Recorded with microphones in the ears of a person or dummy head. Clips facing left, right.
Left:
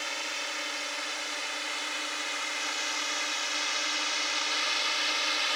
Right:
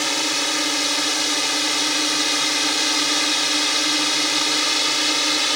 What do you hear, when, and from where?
0.0 s a drone: 75° right (ahead or behind); by 5.6 s 65° right (ahead or behind)